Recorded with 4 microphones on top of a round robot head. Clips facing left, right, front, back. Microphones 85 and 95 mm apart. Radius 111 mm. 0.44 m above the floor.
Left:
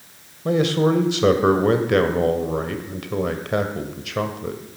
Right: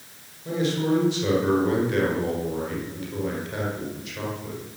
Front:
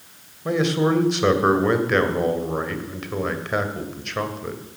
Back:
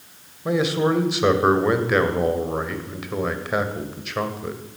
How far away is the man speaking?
About 2 m.